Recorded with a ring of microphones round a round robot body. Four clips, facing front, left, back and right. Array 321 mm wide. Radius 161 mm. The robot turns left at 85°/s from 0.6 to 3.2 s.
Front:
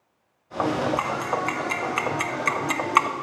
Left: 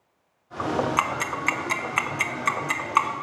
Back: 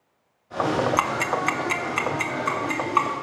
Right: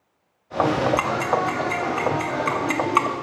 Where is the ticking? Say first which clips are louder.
Right 5 dB, back 2 dB; 170° left, 0.8 m; by 3.1 s 10° right, 0.8 m.